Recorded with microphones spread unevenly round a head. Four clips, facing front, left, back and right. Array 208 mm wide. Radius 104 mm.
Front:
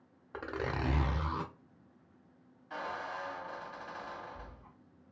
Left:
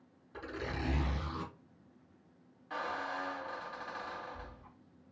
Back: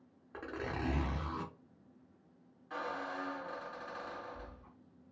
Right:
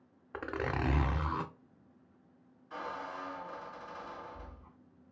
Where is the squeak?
95° left, 1.6 m.